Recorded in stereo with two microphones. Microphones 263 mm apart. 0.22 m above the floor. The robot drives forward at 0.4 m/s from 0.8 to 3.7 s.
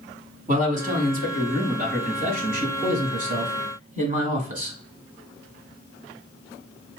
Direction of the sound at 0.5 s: 35° right (ahead or behind).